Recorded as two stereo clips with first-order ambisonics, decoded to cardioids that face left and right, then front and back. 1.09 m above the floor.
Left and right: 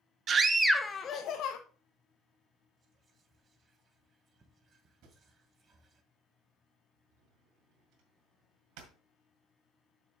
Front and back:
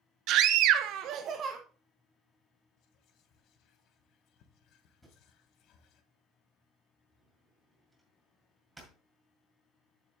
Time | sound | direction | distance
0.3 | a scream | 145° right | 0.7 m
2.8 | whispering | 30° right | 1.3 m
5.0 | a drawer | 95° right | 1.9 m